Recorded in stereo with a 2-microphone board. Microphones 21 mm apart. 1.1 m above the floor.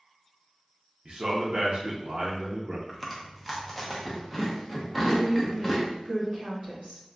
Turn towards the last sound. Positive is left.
turn(degrees=-55)  # may be behind; listen again after turning